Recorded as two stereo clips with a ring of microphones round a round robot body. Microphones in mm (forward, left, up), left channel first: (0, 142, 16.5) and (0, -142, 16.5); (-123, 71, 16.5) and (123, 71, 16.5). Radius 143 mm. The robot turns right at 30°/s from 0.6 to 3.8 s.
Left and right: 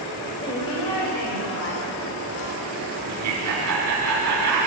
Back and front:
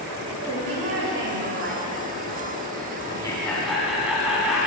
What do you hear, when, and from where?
0.4 s a woman speaking: 15° left, 3.5 m; by 1.9 s 55° left, 3.5 m
3.1 s laughter: 110° right, 1.5 m; by 4.7 s 90° right, 1.5 m